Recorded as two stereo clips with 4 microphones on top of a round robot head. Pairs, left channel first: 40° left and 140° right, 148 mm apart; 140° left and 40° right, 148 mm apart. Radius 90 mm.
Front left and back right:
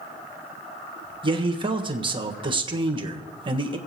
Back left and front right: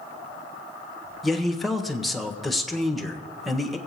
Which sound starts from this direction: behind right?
A man speaking, at 1.2 s.